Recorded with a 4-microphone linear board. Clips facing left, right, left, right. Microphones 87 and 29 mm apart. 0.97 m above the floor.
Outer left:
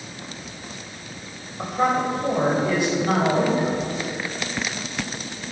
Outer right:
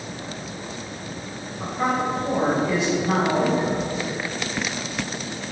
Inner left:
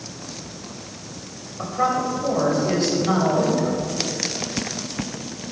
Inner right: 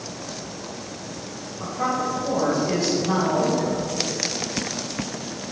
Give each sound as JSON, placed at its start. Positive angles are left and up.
{"t": 1.6, "sound": "a man speaking", "side_deg": 55, "distance_m": 4.5}